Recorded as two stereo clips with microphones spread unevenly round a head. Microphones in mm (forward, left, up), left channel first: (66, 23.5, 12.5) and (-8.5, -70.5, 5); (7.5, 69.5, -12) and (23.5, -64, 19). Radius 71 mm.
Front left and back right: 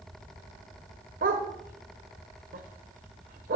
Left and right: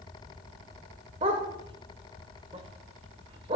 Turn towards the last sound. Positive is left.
turn(degrees=-130)